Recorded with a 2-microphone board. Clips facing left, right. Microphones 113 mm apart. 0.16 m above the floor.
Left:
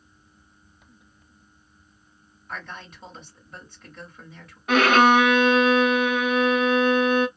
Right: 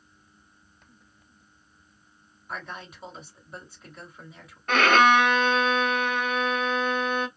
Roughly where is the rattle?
I don't hear a rattle.